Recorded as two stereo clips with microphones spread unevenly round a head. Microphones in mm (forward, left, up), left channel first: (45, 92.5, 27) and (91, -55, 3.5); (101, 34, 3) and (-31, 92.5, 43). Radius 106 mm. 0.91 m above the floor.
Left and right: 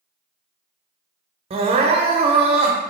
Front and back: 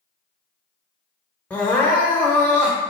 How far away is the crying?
About 0.6 m.